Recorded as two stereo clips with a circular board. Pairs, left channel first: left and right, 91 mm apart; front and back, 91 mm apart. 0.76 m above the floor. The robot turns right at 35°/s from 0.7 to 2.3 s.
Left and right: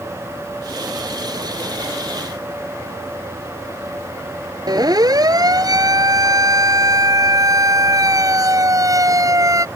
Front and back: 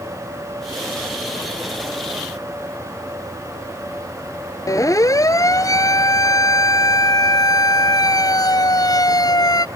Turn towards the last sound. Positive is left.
turn(degrees=-40)